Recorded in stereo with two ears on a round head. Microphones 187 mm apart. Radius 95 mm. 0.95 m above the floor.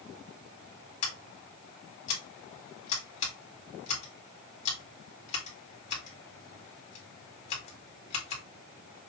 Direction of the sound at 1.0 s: 35° left (ahead or behind).